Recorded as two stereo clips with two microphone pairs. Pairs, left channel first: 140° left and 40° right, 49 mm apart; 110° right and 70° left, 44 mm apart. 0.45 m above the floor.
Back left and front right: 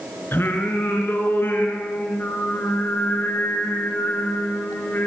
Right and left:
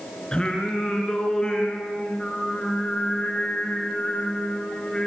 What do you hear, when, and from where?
0.3 s singing: straight behind, 4 m